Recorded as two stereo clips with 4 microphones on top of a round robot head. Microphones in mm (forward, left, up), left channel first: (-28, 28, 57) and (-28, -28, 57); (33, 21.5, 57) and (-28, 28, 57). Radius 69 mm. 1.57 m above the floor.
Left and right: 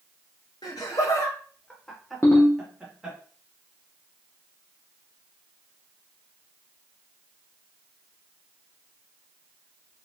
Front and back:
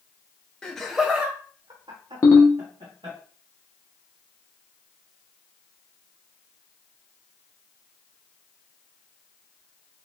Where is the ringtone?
30° left, 0.7 m.